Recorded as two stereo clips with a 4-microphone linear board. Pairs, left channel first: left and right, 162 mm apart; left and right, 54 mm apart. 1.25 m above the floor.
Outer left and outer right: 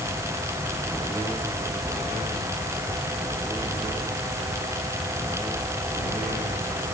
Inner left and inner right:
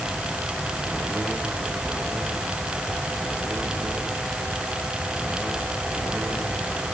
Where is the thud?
No thud in this recording.